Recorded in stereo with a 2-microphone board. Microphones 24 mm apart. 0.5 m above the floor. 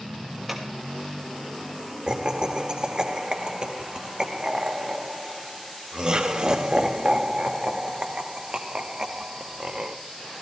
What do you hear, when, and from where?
0.5 s scissors: 10° right (ahead or behind), 2.5 m
2.1 s laughter: 40° right (ahead or behind), 1.0 m